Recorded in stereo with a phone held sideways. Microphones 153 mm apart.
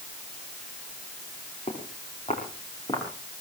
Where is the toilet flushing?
I don't hear a toilet flushing.